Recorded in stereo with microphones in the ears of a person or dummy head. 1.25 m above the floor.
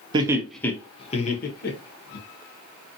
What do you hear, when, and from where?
0.1 s laughter: 20° right (ahead or behind), 0.6 m; by 2.2 s 55° left (ahead or behind), 1.1 m